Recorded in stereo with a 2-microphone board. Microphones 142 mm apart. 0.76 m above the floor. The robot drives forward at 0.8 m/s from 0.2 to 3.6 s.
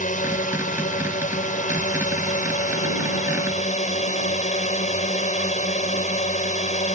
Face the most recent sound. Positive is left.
turn(degrees=60)  # may be behind; listen again after turning